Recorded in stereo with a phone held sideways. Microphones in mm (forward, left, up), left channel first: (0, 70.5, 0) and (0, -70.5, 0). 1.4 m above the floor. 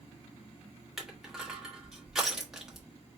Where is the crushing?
5° right (ahead or behind), 1.2 m.